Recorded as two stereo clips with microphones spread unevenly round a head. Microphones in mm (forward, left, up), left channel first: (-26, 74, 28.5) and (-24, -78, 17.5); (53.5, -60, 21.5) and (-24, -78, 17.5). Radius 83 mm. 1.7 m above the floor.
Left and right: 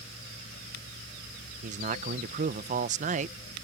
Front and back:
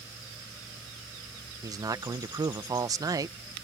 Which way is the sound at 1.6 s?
130° right.